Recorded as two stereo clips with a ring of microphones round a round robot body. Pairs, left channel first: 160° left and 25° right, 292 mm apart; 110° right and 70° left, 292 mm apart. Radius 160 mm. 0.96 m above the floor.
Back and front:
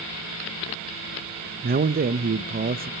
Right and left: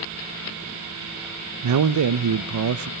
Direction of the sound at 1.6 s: 35° left.